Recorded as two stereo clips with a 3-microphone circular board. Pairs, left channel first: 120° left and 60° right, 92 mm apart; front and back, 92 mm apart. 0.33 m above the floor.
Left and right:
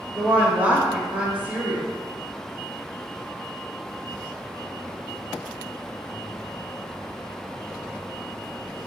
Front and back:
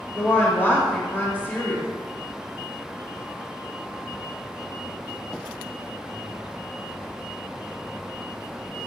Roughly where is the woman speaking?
Ahead.